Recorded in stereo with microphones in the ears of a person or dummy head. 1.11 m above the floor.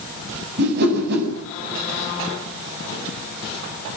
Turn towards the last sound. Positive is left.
turn(degrees=-55)  # may be behind; listen again after turning